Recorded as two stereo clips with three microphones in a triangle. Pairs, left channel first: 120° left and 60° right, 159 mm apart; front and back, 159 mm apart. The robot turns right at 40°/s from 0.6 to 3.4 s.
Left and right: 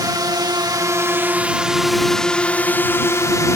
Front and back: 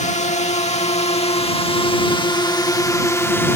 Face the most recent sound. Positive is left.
turn(degrees=60)